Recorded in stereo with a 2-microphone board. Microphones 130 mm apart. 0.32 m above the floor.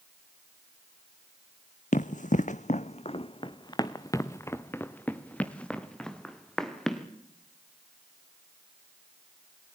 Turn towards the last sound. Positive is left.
turn(degrees=0)  # may be behind; listen again after turning